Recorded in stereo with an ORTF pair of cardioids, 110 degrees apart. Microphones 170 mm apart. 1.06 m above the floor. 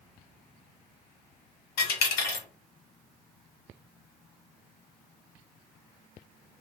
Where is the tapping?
I don't hear tapping.